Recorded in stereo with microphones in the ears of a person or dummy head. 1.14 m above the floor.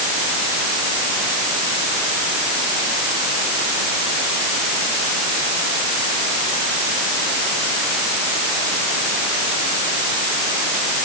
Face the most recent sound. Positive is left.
No sound to turn to.